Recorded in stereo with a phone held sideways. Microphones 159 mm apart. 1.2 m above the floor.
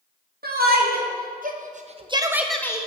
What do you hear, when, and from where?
0.4 s a shout: 80° right, 1.5 m; by 2.9 s 25° left (ahead or behind), 0.6 m